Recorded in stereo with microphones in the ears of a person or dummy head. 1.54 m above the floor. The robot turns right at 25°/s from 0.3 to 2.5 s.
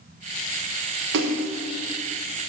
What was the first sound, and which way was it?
A splash, 60° right (ahead or behind).